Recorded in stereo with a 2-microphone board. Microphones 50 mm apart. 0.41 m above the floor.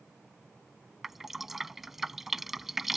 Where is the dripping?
5° right (ahead or behind).